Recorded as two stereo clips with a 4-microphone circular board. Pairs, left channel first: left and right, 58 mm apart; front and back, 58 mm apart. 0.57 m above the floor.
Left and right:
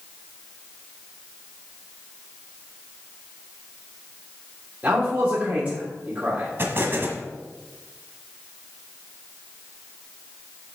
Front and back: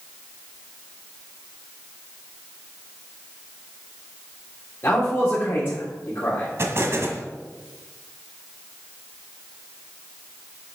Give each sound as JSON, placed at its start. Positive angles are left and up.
{"t": 4.8, "sound": "a man speaking", "azimuth_deg": -40, "distance_m": 1.8}
{"t": 6.6, "sound": "an explosion", "azimuth_deg": -140, "distance_m": 1.3}